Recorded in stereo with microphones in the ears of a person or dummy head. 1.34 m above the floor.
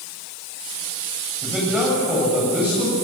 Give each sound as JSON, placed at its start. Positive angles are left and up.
{"t": 1.4, "sound": "a man speaking", "side_deg": -5, "distance_m": 9.0}